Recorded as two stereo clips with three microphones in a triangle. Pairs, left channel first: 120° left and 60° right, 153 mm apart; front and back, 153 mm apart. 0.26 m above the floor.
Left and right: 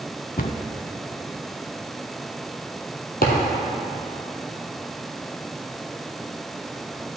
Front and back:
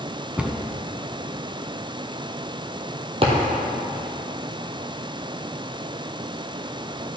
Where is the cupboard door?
100° left, 0.6 m.